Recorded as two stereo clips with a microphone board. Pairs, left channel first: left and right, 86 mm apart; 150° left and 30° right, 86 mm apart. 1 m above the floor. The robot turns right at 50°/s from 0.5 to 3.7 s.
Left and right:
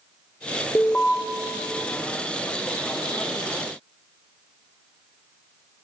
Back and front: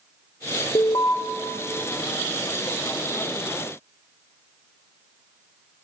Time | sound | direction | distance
0.8 | an alarm | 150° left | 0.9 m